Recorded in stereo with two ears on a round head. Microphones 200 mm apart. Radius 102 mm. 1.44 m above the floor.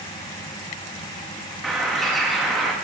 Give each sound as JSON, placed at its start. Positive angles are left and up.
{"t": 1.6, "sound": "a bird", "side_deg": 0, "distance_m": 0.8}